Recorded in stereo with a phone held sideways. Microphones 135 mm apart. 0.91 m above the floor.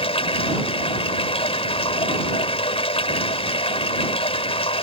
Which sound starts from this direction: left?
Running water, at 0.0 s.